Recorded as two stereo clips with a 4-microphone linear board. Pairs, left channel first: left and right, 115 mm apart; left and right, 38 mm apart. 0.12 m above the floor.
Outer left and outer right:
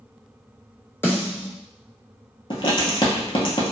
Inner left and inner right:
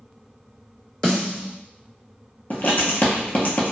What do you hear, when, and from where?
1.0 s a snare drum: 20° left (ahead or behind), 1.2 m
2.5 s writing: 45° left (ahead or behind), 0.8 m